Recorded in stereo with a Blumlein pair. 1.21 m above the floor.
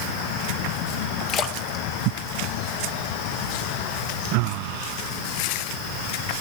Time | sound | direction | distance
1.3 | a splash | 30° left | 1.7 m